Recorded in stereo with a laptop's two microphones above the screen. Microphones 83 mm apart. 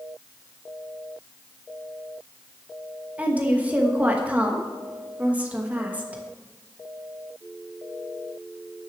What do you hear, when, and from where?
3.2 s a woman speaking: 15° right (ahead or behind), 1.2 m